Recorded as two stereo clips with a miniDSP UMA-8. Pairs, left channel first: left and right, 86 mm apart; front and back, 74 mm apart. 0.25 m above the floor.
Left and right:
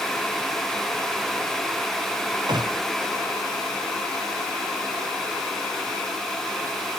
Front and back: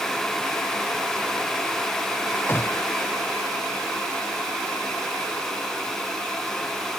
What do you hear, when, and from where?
2.5 s a gunshot: 55° right